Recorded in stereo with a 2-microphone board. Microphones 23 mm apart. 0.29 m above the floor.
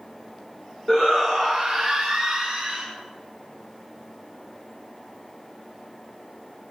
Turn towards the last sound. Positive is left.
turn(degrees=-15)  # may be behind; listen again after turning